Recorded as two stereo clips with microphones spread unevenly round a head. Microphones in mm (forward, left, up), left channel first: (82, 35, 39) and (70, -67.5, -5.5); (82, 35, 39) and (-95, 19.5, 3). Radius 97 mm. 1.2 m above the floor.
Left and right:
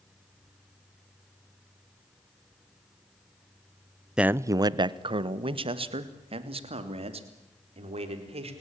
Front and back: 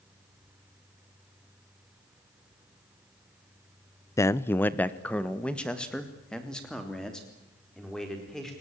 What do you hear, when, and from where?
4.2 s a man speaking: 75° right, 0.5 m; by 8.5 s 85° right, 4.5 m